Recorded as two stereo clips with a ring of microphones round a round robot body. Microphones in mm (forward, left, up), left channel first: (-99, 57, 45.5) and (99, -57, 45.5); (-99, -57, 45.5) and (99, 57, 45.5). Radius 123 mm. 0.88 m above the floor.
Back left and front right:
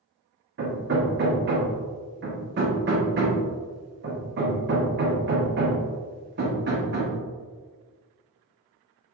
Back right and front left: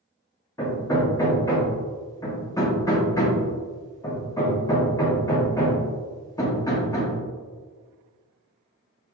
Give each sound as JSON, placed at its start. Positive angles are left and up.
{"t": 0.6, "sound": "hammering", "azimuth_deg": -75, "distance_m": 1.1}